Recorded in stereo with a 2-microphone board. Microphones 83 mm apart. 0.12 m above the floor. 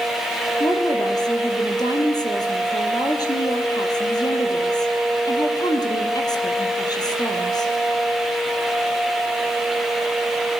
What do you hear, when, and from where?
0.6 s a woman speaking: 50° left (ahead or behind), 3.5 m